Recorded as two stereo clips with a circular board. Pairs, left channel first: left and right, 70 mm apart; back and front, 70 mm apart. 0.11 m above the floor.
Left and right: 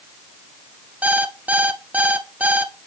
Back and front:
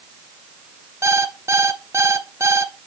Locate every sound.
1.0 s an alarm clock: 30° right, 1.0 m